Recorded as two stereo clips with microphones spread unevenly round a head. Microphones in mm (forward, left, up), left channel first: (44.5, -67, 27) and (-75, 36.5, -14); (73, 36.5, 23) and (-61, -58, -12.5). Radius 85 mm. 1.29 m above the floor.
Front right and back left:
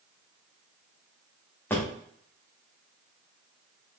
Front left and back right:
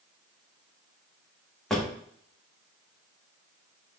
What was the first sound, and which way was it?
A drawer, 25° right.